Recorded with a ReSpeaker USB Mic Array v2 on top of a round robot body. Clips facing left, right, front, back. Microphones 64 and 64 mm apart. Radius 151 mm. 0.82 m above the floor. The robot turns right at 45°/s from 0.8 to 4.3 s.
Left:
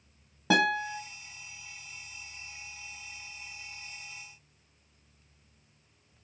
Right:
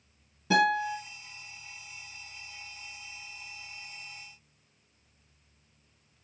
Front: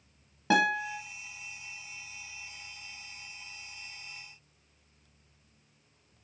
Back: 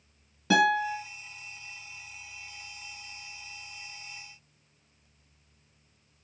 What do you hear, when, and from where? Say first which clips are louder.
0.5 s a guitar: right 1 dB, back 3 dB; 65° left, 0.8 m; by 1.0 s 75° left, 0.8 m